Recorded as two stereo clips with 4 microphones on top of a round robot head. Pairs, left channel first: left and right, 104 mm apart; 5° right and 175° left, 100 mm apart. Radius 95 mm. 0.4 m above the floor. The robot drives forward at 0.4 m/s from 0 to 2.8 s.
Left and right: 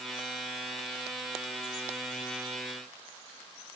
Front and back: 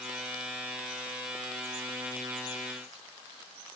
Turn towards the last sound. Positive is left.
No sound to turn to.